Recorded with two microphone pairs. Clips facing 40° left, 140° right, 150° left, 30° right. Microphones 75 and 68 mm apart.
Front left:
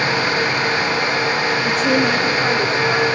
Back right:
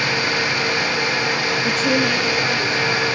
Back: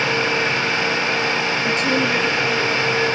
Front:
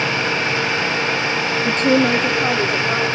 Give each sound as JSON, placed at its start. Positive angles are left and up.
{"t": 1.6, "sound": "a woman speaking", "azimuth_deg": -70, "distance_m": 0.6}